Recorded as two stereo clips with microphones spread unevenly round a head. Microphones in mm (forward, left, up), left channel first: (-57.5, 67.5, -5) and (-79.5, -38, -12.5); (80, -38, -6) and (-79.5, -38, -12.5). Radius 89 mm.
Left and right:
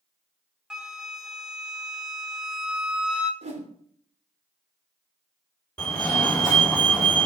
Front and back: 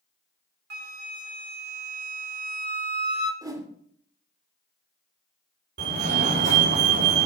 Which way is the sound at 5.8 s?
160° left.